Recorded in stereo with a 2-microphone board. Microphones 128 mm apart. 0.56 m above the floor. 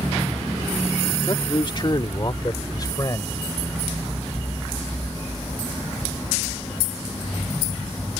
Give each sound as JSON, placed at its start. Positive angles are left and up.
{"t": 1.3, "sound": "a man speaking", "side_deg": 35}